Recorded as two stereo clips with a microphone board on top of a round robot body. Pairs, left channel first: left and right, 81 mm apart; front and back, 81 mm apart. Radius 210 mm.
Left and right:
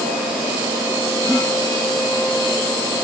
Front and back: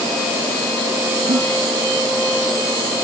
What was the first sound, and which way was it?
A giggle, 175° left.